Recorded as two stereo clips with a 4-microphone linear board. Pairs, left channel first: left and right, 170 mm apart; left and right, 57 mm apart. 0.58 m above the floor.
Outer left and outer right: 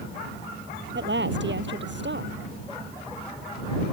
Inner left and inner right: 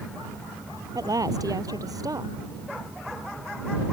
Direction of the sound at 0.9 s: 85° right.